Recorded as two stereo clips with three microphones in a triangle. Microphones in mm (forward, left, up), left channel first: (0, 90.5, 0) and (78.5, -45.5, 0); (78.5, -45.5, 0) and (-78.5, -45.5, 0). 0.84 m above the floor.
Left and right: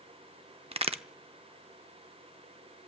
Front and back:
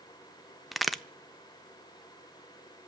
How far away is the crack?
About 0.5 m.